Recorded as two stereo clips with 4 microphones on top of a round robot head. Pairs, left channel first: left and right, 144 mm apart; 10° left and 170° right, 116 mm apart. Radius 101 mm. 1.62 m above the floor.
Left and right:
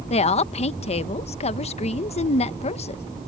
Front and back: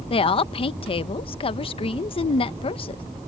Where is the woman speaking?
45° left.